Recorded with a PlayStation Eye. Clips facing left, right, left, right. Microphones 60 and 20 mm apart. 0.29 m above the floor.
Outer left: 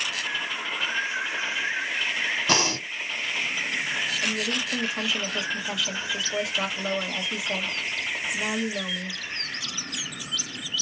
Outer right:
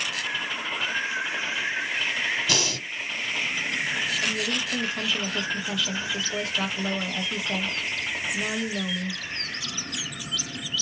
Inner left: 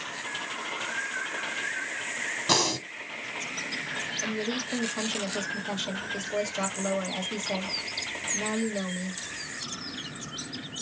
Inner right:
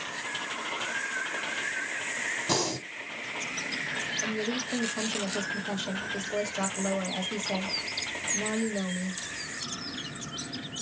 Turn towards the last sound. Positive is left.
turn(degrees=10)  # may be behind; listen again after turning